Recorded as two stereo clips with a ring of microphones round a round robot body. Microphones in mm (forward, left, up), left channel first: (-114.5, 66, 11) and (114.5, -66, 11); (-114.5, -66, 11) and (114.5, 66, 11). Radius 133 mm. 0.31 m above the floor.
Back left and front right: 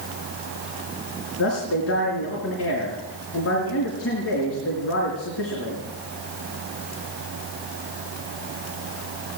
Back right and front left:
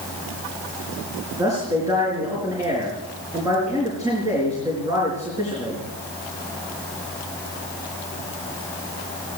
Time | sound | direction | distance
1.4 | a man speaking | 110° left | 4.5 m